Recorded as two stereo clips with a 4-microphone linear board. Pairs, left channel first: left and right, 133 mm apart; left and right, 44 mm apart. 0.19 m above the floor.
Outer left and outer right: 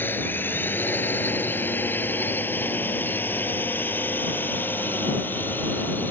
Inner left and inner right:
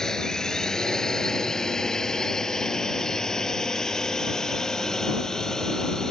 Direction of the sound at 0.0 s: 15° left (ahead or behind).